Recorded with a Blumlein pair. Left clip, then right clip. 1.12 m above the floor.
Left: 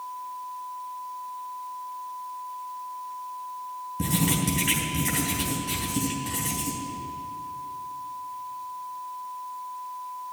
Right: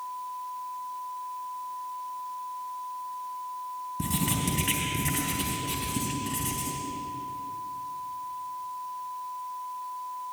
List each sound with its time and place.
4.0 s writing: 5° left, 3.5 m